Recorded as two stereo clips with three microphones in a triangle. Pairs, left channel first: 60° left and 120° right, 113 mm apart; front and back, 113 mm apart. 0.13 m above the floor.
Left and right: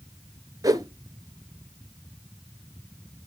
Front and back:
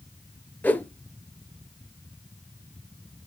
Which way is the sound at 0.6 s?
70° right.